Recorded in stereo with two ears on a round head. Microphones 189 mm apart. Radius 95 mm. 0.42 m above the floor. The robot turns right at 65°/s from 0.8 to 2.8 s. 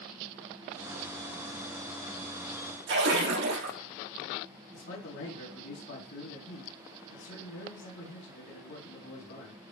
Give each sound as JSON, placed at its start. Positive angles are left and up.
{"t": 2.9, "sound": "a splash", "side_deg": -55, "distance_m": 4.0}
{"t": 4.7, "sound": "a man speaking", "side_deg": 50, "distance_m": 4.0}